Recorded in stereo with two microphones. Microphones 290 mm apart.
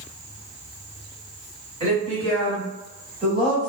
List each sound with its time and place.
1.8 s a woman speaking: 25° right (ahead or behind), 1.8 m; by 3.7 s 5° left (ahead or behind), 1.4 m